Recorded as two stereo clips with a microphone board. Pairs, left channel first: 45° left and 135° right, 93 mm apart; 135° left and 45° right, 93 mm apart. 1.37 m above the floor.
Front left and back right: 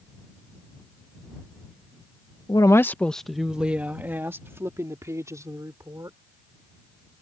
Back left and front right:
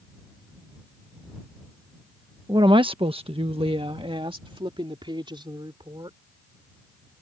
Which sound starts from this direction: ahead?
A woman speaking, at 2.5 s.